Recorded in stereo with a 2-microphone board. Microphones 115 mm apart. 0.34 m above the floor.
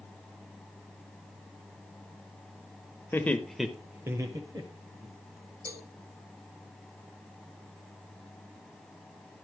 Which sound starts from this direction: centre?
Laughter, at 3.1 s.